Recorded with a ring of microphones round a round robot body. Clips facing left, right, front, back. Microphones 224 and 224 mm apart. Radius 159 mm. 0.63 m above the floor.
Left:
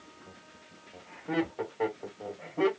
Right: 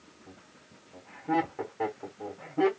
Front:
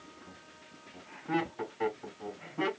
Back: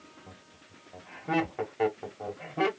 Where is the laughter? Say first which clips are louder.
Right 1 dB, even; 170° right, 1.2 m.